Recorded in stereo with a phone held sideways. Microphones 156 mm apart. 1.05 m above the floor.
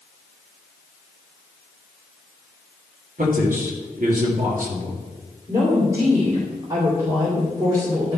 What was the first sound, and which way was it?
A man speaking, 65° right (ahead or behind).